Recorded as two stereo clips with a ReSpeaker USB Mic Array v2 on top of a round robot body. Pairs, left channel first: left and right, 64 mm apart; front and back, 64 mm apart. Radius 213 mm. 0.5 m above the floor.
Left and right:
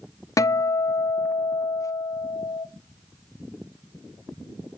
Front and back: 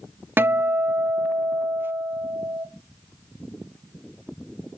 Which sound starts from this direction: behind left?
A guitar, at 0.4 s.